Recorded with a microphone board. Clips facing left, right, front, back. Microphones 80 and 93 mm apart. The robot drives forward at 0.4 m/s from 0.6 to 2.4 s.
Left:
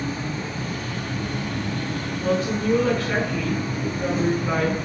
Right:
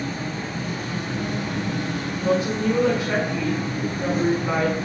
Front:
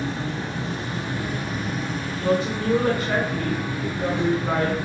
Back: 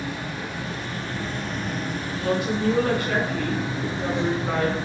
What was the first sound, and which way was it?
An insect, 55° right.